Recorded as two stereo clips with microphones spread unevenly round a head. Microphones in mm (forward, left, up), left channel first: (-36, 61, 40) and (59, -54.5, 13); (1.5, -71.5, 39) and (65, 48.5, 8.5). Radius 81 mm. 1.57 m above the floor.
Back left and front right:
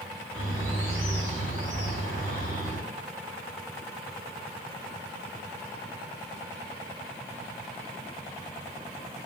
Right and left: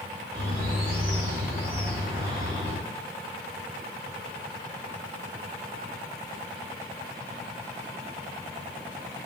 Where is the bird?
10° left, 1.2 m.